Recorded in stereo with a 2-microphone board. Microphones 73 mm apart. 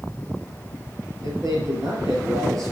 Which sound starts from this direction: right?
A man speaking, at 1.2 s.